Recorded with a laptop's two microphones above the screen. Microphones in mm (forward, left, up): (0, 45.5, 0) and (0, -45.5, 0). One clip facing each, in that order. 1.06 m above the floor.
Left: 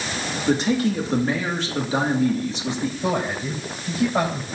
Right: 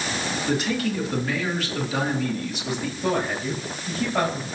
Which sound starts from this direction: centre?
A man speaking, at 3.0 s.